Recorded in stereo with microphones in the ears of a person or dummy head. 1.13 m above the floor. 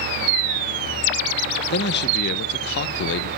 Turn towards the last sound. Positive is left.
turn(degrees=55)  # may be behind; listen again after turning